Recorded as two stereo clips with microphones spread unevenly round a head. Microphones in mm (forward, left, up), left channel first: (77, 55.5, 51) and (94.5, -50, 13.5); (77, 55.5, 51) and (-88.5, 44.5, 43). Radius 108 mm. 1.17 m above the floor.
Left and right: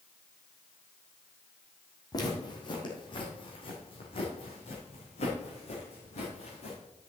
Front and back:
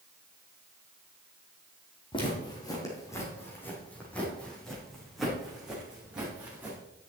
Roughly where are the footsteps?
Ahead left.